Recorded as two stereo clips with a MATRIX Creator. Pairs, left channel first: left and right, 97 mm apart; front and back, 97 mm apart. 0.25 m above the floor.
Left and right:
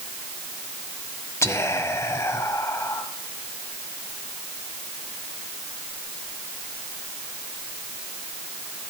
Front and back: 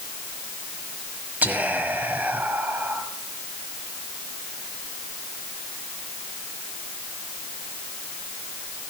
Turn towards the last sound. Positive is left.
turn(degrees=120)